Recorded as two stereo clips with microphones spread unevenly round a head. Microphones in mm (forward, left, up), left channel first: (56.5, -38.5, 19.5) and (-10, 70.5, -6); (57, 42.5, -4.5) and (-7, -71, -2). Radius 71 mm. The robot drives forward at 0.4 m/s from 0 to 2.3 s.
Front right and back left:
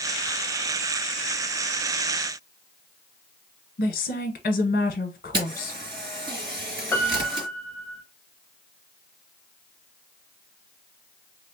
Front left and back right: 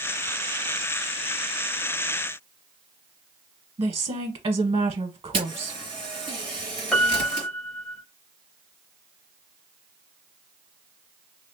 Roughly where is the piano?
Ahead right.